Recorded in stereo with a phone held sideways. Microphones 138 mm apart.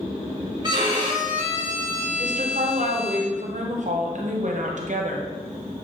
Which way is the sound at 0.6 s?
30° right (ahead or behind).